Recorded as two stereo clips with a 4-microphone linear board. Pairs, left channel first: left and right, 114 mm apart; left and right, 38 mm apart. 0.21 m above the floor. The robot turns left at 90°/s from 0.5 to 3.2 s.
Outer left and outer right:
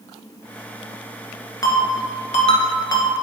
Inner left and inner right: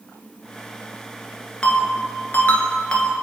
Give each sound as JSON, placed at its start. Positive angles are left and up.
{"t": 1.6, "sound": "a ringtone", "side_deg": 30, "distance_m": 1.2}